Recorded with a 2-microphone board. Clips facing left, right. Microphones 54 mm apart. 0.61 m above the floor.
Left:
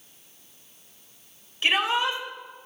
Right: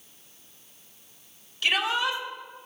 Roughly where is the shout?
Left.